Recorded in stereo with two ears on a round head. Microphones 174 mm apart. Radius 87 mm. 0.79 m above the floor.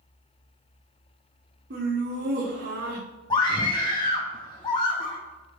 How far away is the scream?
About 0.7 m.